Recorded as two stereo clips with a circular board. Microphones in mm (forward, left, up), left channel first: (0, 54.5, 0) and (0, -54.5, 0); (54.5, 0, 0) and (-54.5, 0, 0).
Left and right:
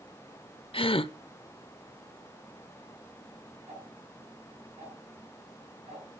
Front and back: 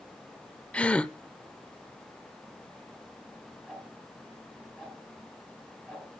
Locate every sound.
0.7 s a gasp: 75° left, 0.6 m
3.7 s ticking: 85° right, 9 m